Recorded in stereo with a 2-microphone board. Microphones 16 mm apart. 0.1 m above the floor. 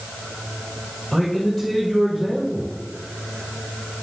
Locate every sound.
1.1 s a man speaking: 15° left (ahead or behind), 2 m